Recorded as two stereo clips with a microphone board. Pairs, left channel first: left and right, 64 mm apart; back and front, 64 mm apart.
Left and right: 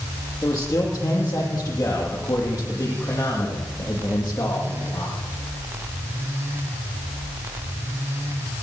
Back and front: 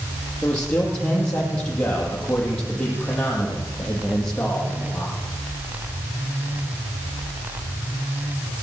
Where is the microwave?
I don't hear a microwave.